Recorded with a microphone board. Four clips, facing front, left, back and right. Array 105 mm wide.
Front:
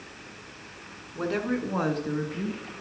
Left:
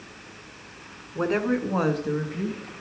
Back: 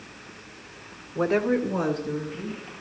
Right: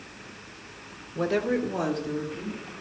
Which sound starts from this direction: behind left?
A woman speaking, at 1.1 s.